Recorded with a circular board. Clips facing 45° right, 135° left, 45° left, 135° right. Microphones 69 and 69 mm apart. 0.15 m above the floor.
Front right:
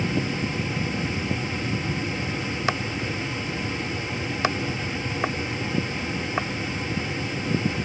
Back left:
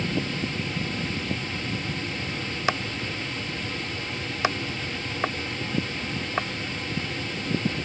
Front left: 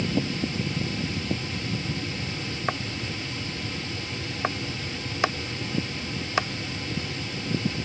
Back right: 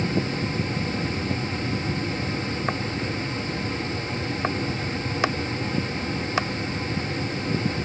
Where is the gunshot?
I don't hear a gunshot.